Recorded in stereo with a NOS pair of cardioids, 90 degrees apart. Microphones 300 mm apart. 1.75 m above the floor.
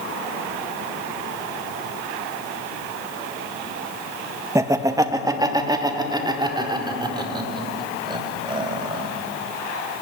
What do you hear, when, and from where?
4.5 s laughter: 10° right, 1.8 m; by 9.0 s 15° right, 7.5 m